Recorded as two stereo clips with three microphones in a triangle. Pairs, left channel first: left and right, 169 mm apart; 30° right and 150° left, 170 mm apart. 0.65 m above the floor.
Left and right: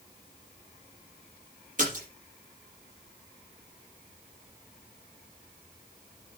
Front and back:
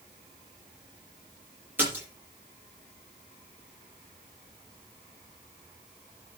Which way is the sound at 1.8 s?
130° right.